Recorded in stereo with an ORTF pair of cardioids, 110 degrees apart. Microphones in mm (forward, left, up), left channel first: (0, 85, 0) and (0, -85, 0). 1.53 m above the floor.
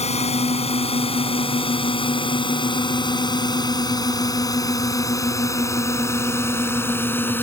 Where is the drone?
40° left; by 7.4 s 10° left.